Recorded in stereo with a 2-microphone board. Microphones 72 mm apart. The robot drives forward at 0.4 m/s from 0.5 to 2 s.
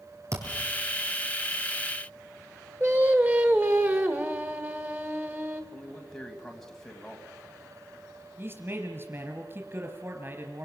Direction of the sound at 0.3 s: 45° right (ahead or behind).